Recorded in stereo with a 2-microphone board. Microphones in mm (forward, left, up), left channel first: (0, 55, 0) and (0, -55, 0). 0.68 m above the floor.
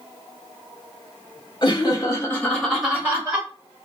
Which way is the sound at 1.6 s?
45° left (ahead or behind).